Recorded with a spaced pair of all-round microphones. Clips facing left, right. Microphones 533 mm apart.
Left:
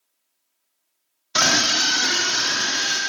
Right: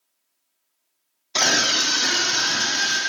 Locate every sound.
1.4 s a scream: 40° left (ahead or behind), 0.5 m; by 3.0 s 10° right (ahead or behind), 1.6 m